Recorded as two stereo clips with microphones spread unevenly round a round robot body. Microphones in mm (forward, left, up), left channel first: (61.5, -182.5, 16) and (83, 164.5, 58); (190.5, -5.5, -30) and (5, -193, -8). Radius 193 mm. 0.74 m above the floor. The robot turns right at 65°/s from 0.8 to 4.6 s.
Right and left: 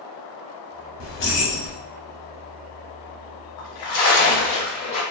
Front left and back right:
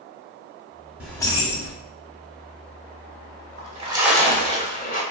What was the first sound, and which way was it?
Keys jangling, 50° right.